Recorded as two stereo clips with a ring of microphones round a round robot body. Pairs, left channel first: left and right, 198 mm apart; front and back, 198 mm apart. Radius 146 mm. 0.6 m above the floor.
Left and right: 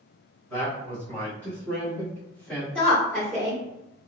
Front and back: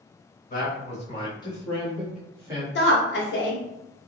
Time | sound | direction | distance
0.5 | a man speaking | 10° left | 1.6 m
2.8 | a woman speaking | 5° left | 1.1 m